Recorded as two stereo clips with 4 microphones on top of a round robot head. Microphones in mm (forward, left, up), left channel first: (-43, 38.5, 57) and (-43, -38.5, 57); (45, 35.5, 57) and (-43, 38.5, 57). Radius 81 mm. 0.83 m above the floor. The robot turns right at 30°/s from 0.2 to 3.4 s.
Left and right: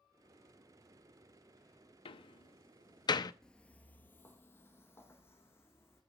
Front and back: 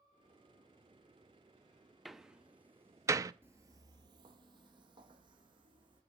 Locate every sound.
2.0 s a door slam: 90° left, 0.6 m; by 3.3 s 125° left, 0.6 m
3.4 s footsteps: 160° left, 0.8 m; by 6.0 s 145° left, 3 m